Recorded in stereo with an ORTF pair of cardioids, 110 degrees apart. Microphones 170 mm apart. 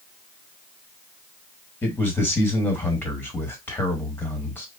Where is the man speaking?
15° left, 1.6 m.